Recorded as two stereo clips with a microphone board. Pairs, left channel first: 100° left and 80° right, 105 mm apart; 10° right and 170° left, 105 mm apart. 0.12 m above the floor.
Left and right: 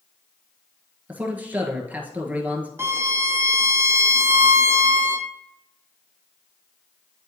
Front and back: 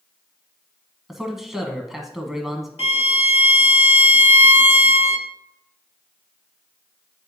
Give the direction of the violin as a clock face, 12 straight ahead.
12 o'clock.